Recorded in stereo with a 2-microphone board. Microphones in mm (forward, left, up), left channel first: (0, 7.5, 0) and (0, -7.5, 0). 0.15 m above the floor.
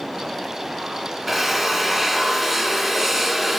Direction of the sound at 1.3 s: 10° right (ahead or behind).